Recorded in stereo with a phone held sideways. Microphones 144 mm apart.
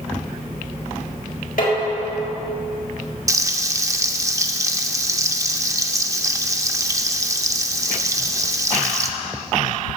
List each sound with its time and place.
1.6 s dishes clattering: 75° left (ahead or behind), 3 m
3.3 s frying: 20° right (ahead or behind), 0.5 m